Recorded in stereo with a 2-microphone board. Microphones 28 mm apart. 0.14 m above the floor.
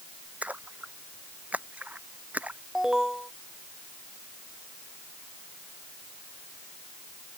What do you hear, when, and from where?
0.4 s a splash: 60° right (ahead or behind)
2.8 s an alarm: 20° right (ahead or behind)